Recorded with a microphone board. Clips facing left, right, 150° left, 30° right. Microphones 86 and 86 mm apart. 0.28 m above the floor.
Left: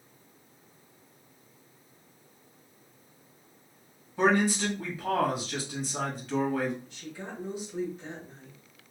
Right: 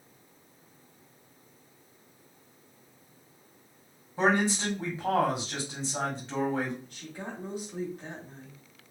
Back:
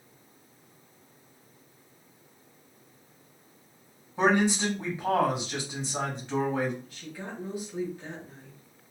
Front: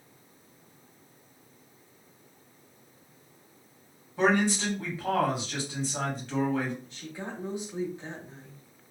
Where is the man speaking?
140° right, 1.9 m.